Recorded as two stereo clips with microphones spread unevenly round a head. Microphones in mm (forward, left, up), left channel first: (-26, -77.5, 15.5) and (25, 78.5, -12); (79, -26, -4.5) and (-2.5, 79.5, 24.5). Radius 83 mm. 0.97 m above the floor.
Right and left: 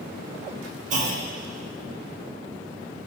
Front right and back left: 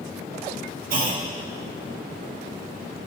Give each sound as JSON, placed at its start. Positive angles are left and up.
{"t": 0.9, "sound": "a clunk", "azimuth_deg": 120, "distance_m": 1.0}